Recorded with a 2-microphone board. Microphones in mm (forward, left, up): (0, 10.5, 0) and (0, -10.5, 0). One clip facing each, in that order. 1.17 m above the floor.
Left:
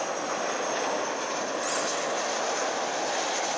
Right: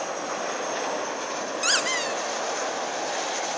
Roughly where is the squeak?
Right.